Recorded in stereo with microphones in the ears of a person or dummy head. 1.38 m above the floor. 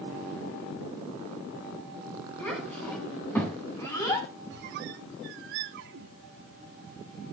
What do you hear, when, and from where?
2.4 s a child speaking: 10° left (ahead or behind), 8 m; by 4.3 s 25° left (ahead or behind), 5 m
4.5 s a squeak: 55° right (ahead or behind), 1.0 m